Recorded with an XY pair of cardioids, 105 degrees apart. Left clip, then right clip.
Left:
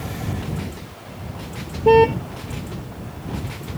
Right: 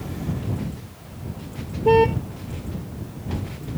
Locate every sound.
1.9 s a car horn: 20° left